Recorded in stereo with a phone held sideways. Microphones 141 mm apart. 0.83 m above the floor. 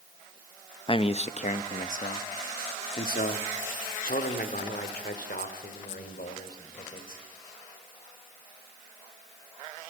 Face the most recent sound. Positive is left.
turn(degrees=80)